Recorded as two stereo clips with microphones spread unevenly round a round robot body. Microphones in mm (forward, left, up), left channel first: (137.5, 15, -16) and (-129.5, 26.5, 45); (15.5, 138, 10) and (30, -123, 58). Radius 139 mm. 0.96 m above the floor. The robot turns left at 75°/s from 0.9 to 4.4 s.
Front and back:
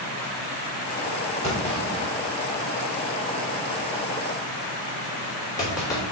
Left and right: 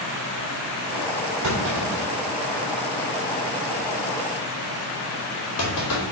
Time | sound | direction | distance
1.4 | a clunk | 65° right | 3 m